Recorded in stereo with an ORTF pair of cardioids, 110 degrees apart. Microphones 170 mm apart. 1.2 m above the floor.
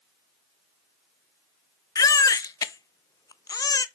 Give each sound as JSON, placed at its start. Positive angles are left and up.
{"t": 1.9, "sound": "a baby crying", "azimuth_deg": 20, "distance_m": 0.6}